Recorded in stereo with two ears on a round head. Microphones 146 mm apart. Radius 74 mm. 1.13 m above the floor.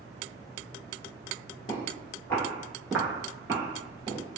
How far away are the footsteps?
About 1.2 m.